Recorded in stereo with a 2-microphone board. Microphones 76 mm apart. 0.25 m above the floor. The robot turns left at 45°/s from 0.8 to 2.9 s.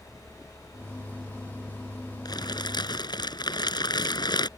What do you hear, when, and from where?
2.2 s crumpling: 65° left (ahead or behind); by 4.5 s 70° left (ahead or behind)